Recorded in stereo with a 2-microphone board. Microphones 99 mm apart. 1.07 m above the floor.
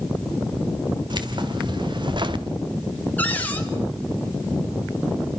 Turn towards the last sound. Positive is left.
turn(degrees=15)  # may be behind; listen again after turning